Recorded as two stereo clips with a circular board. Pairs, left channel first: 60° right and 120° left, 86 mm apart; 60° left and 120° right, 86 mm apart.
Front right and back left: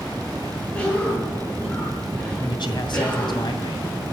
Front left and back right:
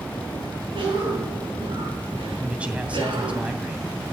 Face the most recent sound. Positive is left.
turn(degrees=-45)